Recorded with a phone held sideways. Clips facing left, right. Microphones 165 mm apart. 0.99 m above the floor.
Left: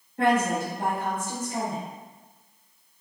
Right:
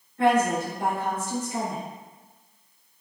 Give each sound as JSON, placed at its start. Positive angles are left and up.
{"t": 0.2, "sound": "a woman speaking", "side_deg": 55, "distance_m": 1.2}